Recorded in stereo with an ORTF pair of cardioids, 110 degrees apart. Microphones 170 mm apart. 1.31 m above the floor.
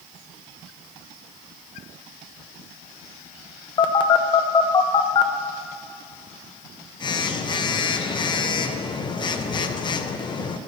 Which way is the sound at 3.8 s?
30° left.